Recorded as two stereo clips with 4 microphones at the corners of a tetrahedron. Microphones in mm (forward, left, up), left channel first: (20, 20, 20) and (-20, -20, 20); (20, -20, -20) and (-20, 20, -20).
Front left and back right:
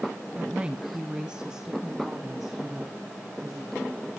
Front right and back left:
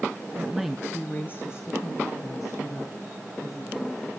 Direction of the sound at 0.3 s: 170° left.